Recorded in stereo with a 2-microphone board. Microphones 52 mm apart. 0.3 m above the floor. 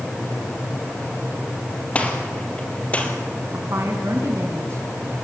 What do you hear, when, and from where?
1.9 s a gunshot: 25° left (ahead or behind), 3 m
3.5 s a woman speaking: 60° right (ahead or behind), 2.5 m